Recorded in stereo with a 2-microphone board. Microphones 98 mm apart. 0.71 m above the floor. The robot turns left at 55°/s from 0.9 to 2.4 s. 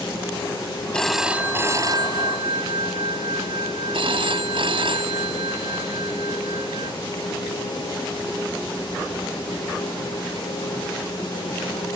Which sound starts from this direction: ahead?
A phone ringing, at 0.9 s.